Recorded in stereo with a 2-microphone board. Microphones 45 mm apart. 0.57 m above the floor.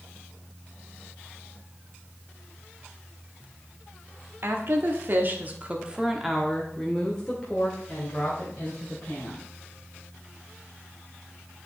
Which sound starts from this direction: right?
A woman speaking, at 4.4 s.